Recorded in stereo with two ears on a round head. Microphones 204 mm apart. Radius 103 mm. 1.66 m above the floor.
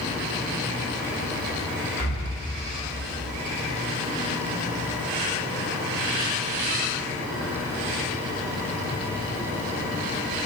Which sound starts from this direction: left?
Breathing, at 2.0 s.